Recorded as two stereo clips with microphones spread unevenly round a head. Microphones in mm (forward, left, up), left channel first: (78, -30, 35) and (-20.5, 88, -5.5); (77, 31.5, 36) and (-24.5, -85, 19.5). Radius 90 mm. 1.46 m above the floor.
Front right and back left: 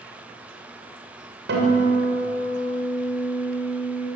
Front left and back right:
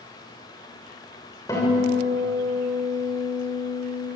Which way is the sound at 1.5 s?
120° left.